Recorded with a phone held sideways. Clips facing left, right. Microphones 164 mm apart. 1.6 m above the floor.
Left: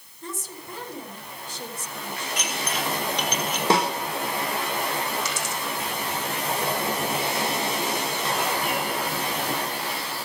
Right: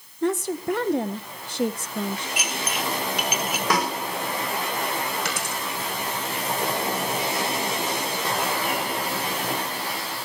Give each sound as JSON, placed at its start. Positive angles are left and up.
{"t": 0.2, "sound": "a woman speaking", "side_deg": -70, "distance_m": 1.2}
{"t": 2.4, "sound": "dishes clattering", "side_deg": -10, "distance_m": 2.5}
{"t": 3.7, "sound": "a snare drum", "side_deg": 25, "distance_m": 4.0}
{"t": 5.2, "sound": "a dropped coin", "side_deg": -65, "distance_m": 4.0}